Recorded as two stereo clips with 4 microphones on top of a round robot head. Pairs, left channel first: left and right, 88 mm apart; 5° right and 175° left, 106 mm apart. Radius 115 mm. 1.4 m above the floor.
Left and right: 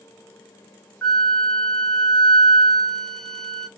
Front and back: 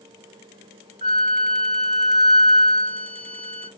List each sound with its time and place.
1.0 s a flute: 170° left, 1.9 m